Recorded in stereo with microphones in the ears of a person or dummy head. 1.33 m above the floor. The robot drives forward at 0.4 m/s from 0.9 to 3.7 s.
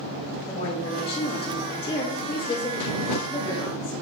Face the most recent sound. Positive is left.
turn(degrees=20)  # may be behind; listen again after turning